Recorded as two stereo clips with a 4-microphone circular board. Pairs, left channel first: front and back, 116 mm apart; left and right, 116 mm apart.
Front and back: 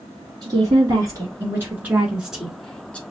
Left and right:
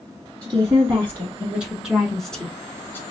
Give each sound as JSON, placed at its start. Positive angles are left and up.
{"t": 0.4, "sound": "a woman speaking", "azimuth_deg": -145, "distance_m": 1.6}